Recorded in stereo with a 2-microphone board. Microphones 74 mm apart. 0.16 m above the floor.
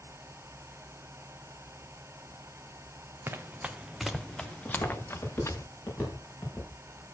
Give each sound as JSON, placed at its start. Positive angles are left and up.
{"t": 3.3, "sound": "running footsteps", "side_deg": -30, "distance_m": 0.9}
{"t": 4.7, "sound": "footsteps", "side_deg": 30, "distance_m": 6.5}